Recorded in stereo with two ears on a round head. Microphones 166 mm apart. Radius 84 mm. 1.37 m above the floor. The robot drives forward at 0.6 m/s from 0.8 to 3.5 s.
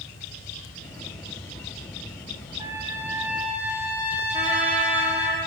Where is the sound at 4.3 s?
40° right (ahead or behind), 0.8 m.